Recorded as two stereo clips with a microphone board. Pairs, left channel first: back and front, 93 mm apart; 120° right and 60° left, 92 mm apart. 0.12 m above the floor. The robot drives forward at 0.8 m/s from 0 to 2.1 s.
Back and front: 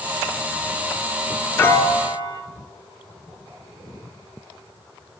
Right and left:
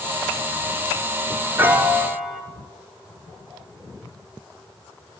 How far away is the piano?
About 0.6 m.